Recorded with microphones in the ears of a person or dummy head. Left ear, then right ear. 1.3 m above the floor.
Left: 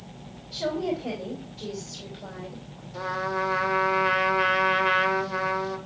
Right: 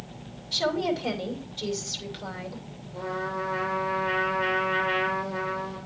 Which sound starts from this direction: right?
A woman speaking, at 0.5 s.